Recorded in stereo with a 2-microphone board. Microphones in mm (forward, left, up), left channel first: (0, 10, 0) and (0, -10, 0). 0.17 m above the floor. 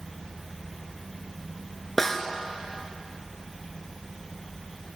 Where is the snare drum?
20° left (ahead or behind), 3 m.